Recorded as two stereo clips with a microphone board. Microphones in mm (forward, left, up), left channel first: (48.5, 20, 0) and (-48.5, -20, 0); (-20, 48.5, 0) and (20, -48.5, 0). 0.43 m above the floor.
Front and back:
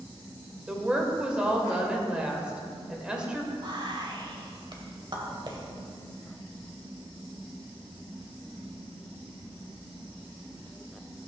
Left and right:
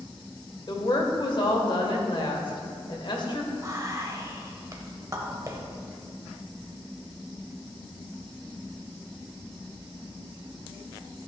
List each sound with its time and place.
0.7 s a woman speaking: 125° left, 1.4 m
3.6 s whispering: 120° right, 1.6 m